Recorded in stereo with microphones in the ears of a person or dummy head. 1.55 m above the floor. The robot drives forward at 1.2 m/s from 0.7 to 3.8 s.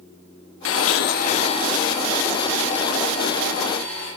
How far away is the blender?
About 0.7 m.